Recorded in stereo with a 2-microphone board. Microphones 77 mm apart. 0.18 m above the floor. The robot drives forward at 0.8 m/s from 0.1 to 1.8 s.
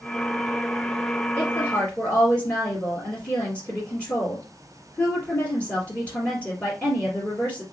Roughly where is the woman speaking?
Centre.